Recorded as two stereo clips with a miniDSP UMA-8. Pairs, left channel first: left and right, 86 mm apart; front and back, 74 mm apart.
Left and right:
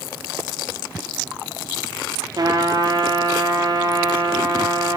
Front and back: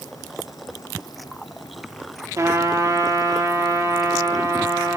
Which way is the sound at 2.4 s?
135° right.